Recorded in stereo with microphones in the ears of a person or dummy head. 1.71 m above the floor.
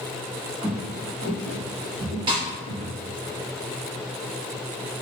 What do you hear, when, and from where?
0.6 s footsteps: 25° right (ahead or behind), 1.8 m; by 3.3 s 5° left (ahead or behind), 2.5 m
2.3 s a snare drum: 25° right (ahead or behind), 2.0 m